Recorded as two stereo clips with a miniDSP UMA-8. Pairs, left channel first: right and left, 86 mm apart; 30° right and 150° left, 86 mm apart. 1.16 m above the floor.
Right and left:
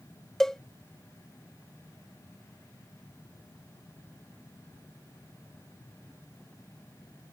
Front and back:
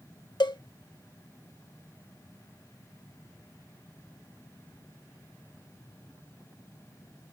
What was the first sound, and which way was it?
A cowbell, 5° right.